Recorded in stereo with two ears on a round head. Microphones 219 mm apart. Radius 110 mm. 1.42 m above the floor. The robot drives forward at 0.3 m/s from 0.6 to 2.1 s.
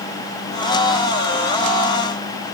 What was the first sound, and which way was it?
Only background noise.